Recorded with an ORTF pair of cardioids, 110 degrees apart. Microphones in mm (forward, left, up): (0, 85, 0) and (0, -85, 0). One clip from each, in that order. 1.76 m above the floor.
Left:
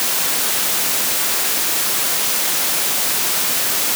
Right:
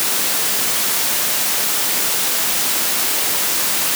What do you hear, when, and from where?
Only background noise.